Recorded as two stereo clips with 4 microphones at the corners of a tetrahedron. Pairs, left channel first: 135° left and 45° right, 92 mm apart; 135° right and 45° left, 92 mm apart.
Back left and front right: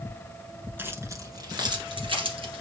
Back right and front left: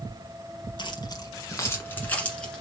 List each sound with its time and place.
0.8 s keys jangling: 110° right, 1.3 m; by 2.6 s 50° right, 2 m